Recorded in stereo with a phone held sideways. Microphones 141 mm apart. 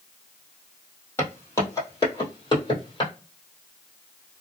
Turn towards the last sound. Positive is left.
turn(degrees=40)  # may be behind; listen again after turning